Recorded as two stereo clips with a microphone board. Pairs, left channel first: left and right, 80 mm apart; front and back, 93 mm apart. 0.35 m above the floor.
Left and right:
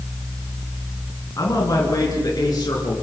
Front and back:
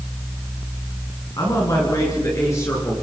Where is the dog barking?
No dog barking in this recording.